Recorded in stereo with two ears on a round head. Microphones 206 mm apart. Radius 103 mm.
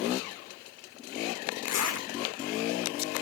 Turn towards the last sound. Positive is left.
turn(degrees=75)  # may be behind; listen again after turning